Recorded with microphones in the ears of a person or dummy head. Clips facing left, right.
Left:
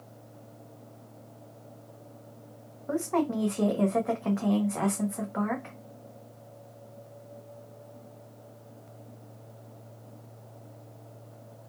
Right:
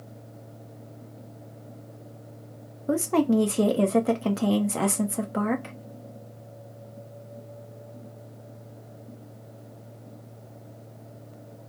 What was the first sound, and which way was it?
A woman speaking, 40° right (ahead or behind).